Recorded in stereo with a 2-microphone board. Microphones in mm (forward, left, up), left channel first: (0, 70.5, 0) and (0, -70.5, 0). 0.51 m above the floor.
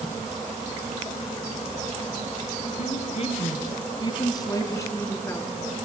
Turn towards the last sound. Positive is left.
turn(degrees=15)  # may be behind; listen again after turning